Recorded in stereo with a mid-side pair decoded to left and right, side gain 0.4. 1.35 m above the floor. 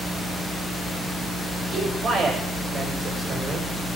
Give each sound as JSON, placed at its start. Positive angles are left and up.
{"t": 1.7, "sound": "a man speaking", "azimuth_deg": -65, "distance_m": 8.0}